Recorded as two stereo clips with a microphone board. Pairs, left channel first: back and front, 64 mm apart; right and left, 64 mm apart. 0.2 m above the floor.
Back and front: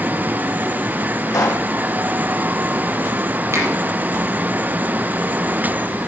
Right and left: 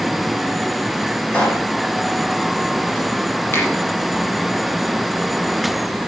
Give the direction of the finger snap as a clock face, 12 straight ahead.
1 o'clock.